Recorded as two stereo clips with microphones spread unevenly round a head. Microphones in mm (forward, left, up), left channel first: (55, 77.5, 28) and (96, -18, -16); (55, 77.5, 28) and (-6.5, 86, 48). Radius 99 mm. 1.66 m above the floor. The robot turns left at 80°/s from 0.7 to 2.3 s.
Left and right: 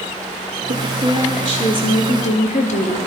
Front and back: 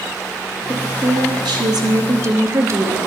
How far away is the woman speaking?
About 0.9 m.